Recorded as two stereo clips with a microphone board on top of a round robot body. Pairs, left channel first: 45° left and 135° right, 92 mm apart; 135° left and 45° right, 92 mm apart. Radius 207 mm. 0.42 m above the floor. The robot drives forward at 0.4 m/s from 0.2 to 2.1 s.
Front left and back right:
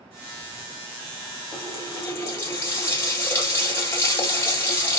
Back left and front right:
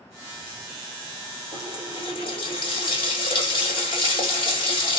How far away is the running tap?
About 1.8 m.